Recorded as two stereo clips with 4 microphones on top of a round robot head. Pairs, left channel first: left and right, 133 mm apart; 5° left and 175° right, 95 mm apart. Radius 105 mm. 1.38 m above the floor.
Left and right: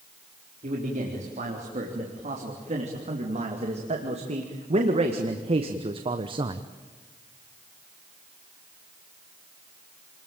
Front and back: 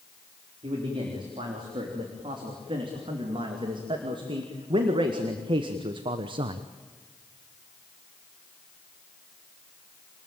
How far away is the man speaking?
About 4 m.